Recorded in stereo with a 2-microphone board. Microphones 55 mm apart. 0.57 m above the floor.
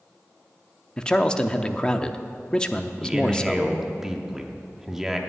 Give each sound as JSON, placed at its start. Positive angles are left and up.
{"t": 1.0, "sound": "a man speaking", "side_deg": 15, "distance_m": 0.6}
{"t": 3.0, "sound": "a man speaking", "side_deg": -10, "distance_m": 1.2}